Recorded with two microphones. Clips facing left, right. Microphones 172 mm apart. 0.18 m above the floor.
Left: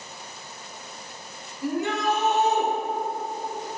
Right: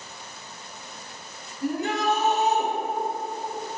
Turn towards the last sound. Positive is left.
turn(degrees=-35)  # may be behind; listen again after turning